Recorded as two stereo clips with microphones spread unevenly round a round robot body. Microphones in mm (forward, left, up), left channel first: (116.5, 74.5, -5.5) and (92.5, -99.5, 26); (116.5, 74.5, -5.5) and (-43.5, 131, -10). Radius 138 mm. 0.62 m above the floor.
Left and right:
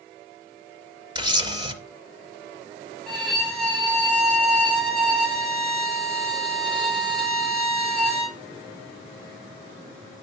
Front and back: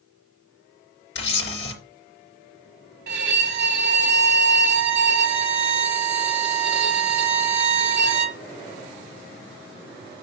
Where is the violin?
165° left, 1.8 m.